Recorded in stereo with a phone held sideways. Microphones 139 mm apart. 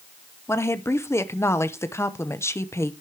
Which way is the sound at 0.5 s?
20° left (ahead or behind).